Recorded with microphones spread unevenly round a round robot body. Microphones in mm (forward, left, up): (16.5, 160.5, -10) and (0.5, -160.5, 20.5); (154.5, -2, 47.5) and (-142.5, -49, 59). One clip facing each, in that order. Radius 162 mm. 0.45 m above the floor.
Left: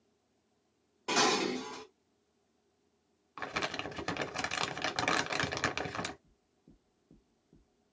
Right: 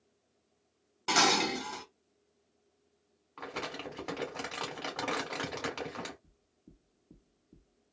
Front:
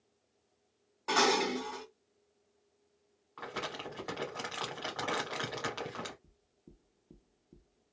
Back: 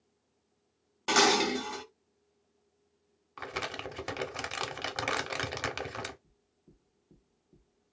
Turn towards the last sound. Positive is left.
turn(degrees=-20)